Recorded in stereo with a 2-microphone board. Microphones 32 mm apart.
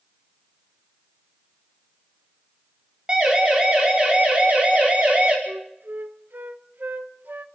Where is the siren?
25° right (ahead or behind), 5 m; by 5.4 s 40° right (ahead or behind), 4.5 m.